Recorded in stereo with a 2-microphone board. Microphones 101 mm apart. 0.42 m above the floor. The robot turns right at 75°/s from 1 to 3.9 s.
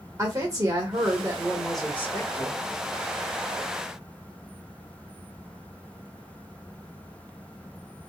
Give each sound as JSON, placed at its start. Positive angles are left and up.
{"t": 0.2, "sound": "a woman speaking", "azimuth_deg": -50, "distance_m": 1.3}